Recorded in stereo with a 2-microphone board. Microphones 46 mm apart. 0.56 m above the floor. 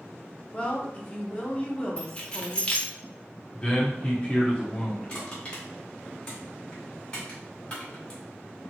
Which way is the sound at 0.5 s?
25° left (ahead or behind).